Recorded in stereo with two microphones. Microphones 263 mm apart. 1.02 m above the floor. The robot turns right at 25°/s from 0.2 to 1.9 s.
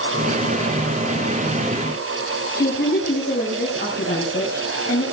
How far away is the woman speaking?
About 6.5 m.